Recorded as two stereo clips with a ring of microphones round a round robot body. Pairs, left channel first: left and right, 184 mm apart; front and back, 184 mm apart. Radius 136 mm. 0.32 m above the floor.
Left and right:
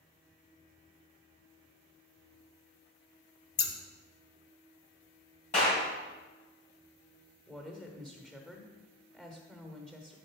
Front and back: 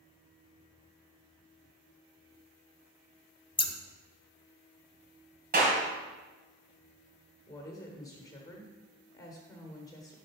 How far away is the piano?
No piano in this recording.